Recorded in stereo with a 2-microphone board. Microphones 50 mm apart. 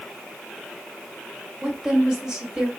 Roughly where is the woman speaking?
Centre.